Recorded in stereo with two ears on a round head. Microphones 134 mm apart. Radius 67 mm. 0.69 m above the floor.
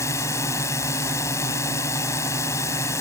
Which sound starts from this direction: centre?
A drone, at 0.0 s.